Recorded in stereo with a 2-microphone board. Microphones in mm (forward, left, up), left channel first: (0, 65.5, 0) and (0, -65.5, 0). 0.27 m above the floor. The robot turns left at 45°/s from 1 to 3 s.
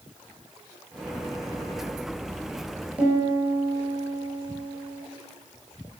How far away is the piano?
About 4.5 m.